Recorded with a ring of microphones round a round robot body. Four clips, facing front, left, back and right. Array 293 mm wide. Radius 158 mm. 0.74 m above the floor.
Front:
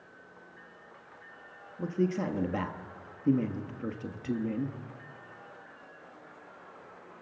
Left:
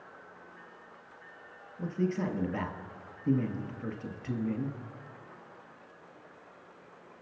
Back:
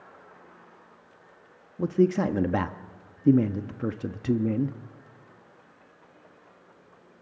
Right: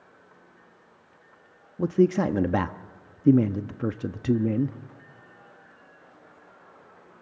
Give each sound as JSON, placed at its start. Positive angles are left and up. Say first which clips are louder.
{"t": 1.8, "sound": "a man speaking", "louder": "right 10 dB, back 7 dB", "azimuth_deg": -120, "distance_m": 1.0}